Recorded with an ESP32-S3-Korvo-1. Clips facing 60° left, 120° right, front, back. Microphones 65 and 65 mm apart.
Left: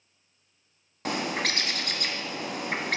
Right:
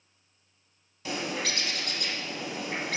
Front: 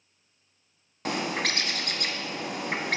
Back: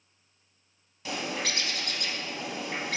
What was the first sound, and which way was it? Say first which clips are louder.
A bird: left 3 dB, front 4 dB; 30° left.